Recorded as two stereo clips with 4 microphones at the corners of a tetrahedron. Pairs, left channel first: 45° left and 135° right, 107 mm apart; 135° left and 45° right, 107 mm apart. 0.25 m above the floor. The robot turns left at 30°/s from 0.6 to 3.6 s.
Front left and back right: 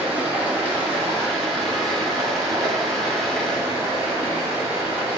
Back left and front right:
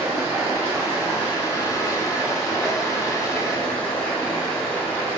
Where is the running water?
75° right, 1.0 m; by 5.2 s 165° right, 1.0 m.